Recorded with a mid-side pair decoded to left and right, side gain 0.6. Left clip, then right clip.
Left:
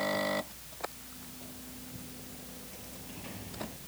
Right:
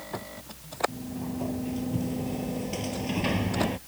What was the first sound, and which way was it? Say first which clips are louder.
A sliding door: right 12 dB; 65° right.